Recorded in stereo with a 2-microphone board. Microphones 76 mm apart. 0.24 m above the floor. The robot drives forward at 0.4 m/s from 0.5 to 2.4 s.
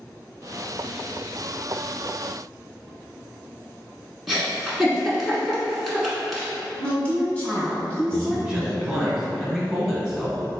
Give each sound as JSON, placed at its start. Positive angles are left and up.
{"t": 4.3, "sound": "a giggle", "side_deg": 0, "distance_m": 1.0}
{"t": 6.8, "sound": "a woman speaking", "side_deg": 15, "distance_m": 1.5}
{"t": 8.1, "sound": "a man speaking", "side_deg": -5, "distance_m": 0.9}